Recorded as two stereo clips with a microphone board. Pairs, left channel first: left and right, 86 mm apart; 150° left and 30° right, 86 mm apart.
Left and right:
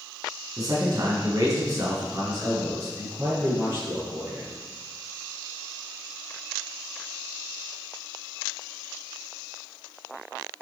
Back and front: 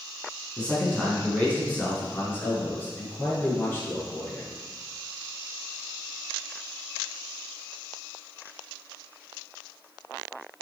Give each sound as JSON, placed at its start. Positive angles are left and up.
{"t": 0.6, "sound": "a man speaking", "azimuth_deg": -130, "distance_m": 4.0}